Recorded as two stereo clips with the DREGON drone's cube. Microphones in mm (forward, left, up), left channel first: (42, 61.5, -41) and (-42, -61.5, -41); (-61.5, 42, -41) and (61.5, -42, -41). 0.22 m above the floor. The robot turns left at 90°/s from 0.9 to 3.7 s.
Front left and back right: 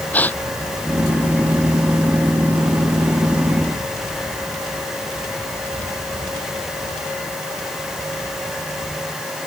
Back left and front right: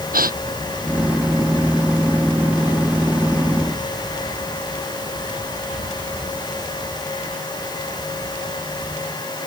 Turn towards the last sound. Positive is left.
turn(degrees=85)